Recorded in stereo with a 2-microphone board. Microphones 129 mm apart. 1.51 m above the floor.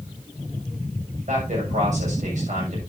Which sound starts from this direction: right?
A man speaking, at 1.3 s.